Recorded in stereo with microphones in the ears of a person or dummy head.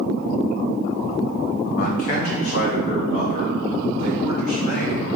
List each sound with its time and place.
1.8 s a man speaking: 50° left (ahead or behind), 1.1 m; by 5.1 s 40° left (ahead or behind), 3 m